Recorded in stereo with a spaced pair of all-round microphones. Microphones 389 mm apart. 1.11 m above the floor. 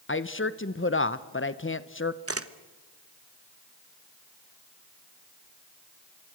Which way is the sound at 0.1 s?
30° left (ahead or behind).